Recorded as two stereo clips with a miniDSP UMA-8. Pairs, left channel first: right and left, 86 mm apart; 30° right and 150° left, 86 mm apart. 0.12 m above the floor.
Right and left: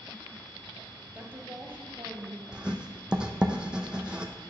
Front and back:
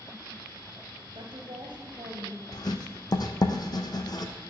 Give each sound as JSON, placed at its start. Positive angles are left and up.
{"t": 1.1, "sound": "a woman speaking", "azimuth_deg": 150, "distance_m": 1.7}
{"t": 2.5, "sound": "writing", "azimuth_deg": 10, "distance_m": 1.1}